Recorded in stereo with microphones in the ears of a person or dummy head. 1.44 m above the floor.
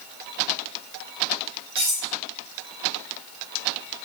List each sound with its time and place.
1.8 s cutlery clinking: 5° right (ahead or behind), 1.1 m